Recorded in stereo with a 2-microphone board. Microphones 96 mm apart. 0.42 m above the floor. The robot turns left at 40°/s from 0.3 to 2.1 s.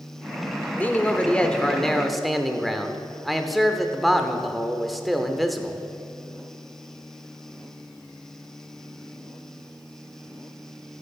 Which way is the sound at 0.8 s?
20° left (ahead or behind).